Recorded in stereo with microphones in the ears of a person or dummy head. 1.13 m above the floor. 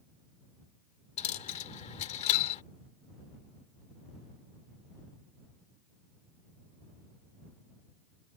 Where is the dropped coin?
35° left (ahead or behind).